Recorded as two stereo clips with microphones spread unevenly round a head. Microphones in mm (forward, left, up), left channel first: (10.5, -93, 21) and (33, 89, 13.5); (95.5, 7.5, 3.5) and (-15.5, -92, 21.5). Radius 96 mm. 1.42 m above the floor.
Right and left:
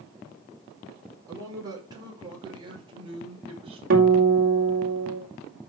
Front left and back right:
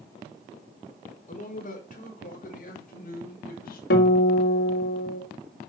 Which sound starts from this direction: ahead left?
A guitar, at 3.9 s.